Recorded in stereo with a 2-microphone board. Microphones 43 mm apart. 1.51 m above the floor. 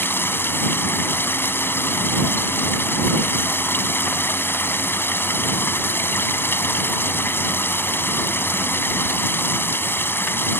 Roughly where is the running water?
Left.